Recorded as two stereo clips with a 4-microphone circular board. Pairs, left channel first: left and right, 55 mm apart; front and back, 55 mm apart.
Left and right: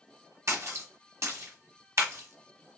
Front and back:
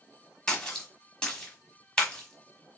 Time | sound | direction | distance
0.5 | a splash | 75° right | 1.2 m